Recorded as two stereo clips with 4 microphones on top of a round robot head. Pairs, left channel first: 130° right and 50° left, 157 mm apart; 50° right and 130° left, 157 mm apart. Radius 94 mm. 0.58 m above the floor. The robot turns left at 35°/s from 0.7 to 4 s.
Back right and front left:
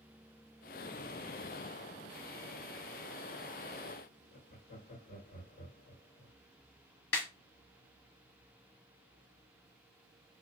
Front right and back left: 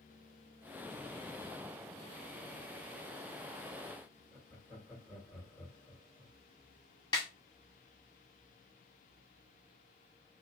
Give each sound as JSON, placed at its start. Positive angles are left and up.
{"t": 4.3, "sound": "laughter", "azimuth_deg": -140, "distance_m": 2.0}
{"t": 7.1, "sound": "a snare drum", "azimuth_deg": -115, "distance_m": 1.1}